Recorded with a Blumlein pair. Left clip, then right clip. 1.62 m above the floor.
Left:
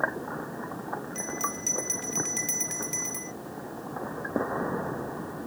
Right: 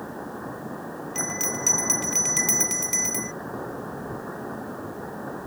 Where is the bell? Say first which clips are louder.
Right 7 dB; 20° right.